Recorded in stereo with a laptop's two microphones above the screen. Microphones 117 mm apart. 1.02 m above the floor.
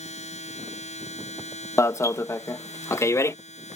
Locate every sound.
0.0 s a machine running: 80° left
1.8 s an alarm: 25° left (ahead or behind)